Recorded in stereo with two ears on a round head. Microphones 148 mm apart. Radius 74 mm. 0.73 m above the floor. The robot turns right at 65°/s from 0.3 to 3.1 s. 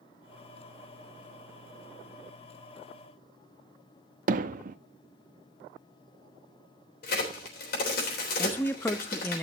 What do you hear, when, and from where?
4.3 s hammering: 55° right (ahead or behind), 0.6 m
7.0 s a crack: 65° left (ahead or behind), 3.5 m
8.4 s a man speaking: 15° left (ahead or behind), 0.5 m